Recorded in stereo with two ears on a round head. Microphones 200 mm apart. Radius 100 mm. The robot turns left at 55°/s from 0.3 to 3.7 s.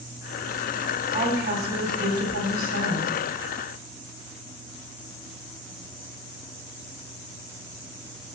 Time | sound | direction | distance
1.1 | a woman speaking | 25° right | 2.0 m